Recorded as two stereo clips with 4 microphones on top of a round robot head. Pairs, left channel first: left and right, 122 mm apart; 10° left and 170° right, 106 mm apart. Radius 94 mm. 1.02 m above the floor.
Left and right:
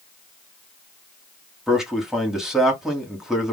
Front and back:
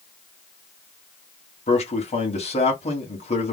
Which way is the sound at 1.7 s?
5° right.